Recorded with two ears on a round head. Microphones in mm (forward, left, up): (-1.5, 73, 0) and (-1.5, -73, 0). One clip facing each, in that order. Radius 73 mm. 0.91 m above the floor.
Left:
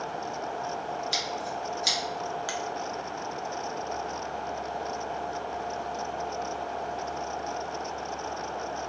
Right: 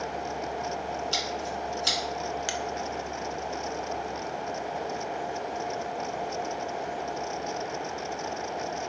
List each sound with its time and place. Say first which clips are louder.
1.1 s scissors: right 1 dB; 15° left (ahead or behind), 1.9 m
2.5 s a finger snap: right 1 dB; 25° right (ahead or behind), 0.5 m